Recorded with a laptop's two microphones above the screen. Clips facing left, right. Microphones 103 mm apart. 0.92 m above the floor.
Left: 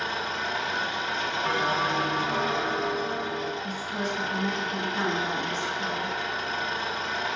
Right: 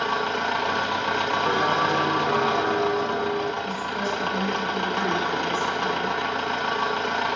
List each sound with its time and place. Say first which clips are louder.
0.0 s an engine running: right 6 dB; 60° right (ahead or behind), 0.8 m
1.4 s a bell: right 3 dB; 30° right (ahead or behind), 0.8 m
3.6 s a woman speaking: right 4 dB; centre (ahead or behind), 3.5 m